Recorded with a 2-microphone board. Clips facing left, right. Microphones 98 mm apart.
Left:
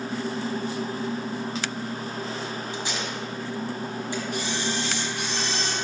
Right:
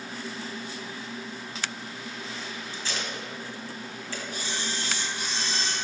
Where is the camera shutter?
70° left (ahead or behind), 2 m.